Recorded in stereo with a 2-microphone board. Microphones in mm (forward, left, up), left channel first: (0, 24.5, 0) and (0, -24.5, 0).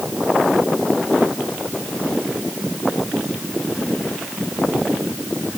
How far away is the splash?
No splash in this recording.